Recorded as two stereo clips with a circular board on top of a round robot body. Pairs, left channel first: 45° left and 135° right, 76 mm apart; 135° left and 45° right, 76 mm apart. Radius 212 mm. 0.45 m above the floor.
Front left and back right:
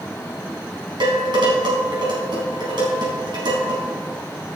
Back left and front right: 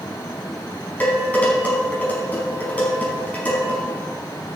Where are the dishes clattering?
155° right, 4.5 m.